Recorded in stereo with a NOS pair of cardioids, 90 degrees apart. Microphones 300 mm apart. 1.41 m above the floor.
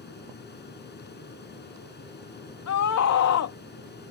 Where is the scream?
55° left.